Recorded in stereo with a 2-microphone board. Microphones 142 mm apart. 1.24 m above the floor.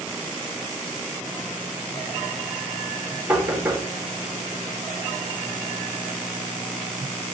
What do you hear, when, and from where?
3.3 s knocking: 15° right (ahead or behind), 0.9 m